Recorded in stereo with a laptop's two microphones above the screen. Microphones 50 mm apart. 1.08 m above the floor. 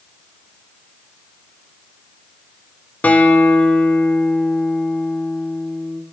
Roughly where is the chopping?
I don't hear chopping.